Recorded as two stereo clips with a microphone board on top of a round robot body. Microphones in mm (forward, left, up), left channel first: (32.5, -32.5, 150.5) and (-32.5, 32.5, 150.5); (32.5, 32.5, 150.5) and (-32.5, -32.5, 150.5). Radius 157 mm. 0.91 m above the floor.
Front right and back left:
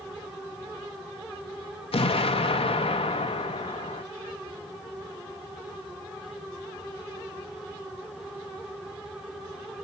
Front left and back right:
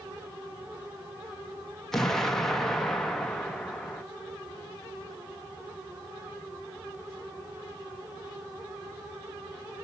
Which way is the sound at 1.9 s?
40° right.